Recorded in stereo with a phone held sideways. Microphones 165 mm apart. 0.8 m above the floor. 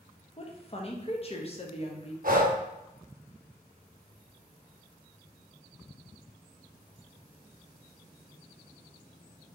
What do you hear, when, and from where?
0.4 s a woman speaking: 40° left (ahead or behind), 0.7 m
2.2 s breathing: 60° right (ahead or behind), 0.7 m